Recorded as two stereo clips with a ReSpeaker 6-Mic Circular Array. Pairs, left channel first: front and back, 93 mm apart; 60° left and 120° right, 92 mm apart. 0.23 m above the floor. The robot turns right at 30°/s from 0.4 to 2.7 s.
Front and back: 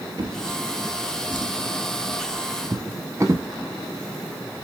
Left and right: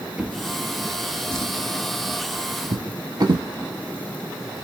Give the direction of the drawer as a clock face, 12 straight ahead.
7 o'clock.